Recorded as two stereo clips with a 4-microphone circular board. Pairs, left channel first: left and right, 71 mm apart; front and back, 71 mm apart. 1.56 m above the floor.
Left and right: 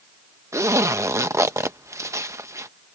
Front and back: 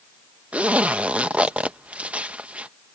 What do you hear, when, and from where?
0.5 s a zipper: 115° right